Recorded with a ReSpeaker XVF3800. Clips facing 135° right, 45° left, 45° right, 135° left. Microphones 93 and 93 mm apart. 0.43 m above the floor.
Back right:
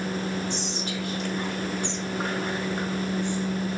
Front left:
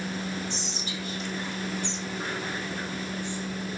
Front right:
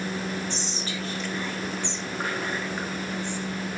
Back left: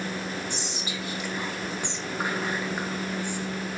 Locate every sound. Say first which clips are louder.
0.5 s whispering: back right 5 dB, front right 1 dB; 150° right, 2 m